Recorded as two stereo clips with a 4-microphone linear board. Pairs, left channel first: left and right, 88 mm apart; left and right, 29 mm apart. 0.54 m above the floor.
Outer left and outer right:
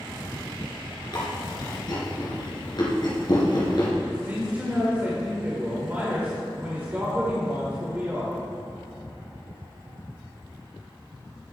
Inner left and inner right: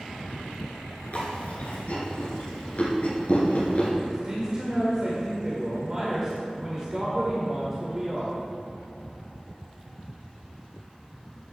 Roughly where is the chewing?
Left.